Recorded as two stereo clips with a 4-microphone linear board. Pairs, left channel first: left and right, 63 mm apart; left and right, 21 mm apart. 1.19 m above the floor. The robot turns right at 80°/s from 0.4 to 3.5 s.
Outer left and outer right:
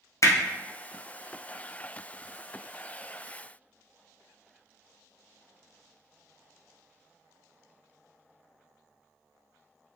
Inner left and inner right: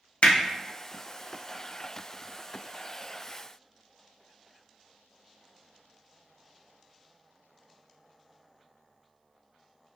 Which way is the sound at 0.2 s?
55° left (ahead or behind).